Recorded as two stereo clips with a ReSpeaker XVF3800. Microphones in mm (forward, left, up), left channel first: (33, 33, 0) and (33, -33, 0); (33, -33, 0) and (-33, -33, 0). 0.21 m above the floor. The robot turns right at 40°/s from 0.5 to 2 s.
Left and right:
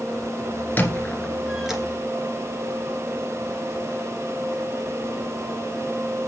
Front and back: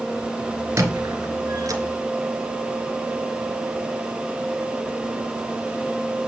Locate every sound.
0.8 s a squeak: 150° left, 1.9 m; by 1.8 s 170° right, 1.9 m